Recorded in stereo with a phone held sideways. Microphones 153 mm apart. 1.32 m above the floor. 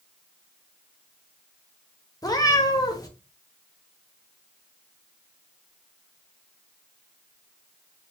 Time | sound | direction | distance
2.2 | a cat meowing | 25° left (ahead or behind) | 0.7 m